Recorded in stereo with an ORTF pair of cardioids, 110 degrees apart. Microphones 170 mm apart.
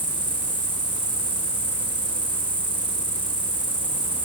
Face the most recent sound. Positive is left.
turn(degrees=-10)